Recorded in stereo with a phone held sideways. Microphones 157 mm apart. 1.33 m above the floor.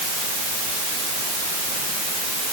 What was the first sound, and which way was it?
Only background noise.